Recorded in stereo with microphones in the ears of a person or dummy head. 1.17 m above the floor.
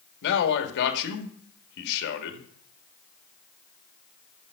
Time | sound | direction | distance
0.2 | a man speaking | 60° left (ahead or behind) | 1.9 m